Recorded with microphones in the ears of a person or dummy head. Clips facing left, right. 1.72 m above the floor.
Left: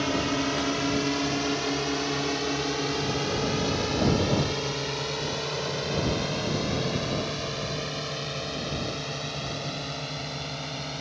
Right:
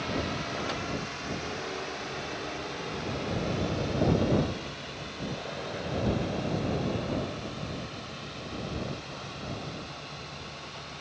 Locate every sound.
0.0 s a drone: 65° left (ahead or behind); by 11.0 s 70° left (ahead or behind)